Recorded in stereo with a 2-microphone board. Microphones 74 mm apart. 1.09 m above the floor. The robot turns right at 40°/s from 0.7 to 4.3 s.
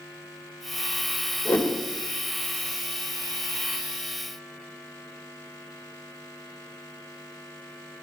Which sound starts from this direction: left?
A whoosh, at 1.4 s.